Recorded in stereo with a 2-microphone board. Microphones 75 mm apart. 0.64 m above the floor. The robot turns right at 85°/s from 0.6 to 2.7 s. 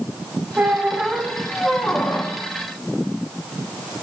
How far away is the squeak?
About 0.6 m.